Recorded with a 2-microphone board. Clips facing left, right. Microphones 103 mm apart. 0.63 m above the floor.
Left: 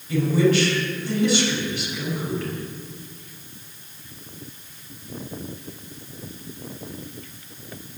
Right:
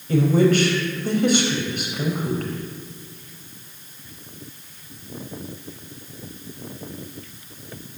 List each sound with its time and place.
0.1 s a woman speaking: 50° right (ahead or behind), 4 m